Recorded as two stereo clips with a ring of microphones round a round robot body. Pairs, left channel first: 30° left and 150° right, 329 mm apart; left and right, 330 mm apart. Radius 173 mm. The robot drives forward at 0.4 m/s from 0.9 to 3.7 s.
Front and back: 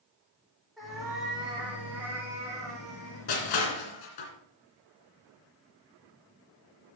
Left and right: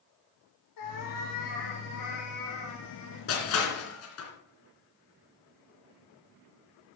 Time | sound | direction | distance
0.8 | a cat meowing | 120° left | 3.5 m
3.3 | crushing | 40° left | 3 m